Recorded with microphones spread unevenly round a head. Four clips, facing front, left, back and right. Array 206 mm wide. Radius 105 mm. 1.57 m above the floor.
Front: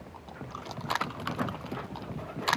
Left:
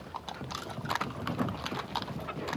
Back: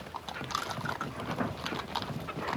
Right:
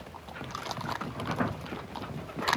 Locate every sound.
Only background noise.